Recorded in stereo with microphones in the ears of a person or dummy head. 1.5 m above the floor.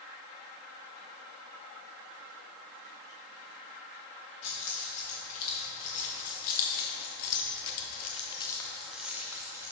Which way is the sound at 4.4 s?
40° left (ahead or behind).